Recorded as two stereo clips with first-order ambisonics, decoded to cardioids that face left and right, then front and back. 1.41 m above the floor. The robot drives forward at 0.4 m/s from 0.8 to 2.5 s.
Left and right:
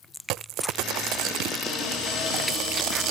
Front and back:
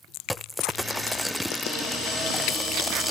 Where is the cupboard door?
55° left, 3.5 m; by 3.1 s 60° left, 3.5 m.